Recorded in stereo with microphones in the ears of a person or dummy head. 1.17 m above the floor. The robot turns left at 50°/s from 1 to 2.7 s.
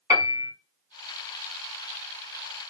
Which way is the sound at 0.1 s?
15° right (ahead or behind).